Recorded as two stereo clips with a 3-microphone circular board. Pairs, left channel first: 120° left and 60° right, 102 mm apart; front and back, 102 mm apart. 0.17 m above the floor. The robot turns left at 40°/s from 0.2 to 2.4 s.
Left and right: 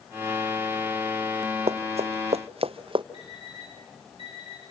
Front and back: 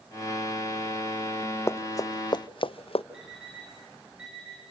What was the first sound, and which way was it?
Running footsteps, 65° right.